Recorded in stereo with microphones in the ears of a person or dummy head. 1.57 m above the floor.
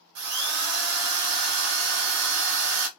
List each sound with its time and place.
0.1 s a drill: 70° right (ahead or behind), 0.8 m